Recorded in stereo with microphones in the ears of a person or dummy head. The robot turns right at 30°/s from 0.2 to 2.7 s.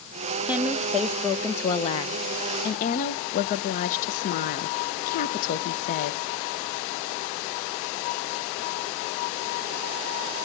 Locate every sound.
0.5 s a woman speaking: 15° right, 0.9 m; by 6.2 s 55° left, 0.9 m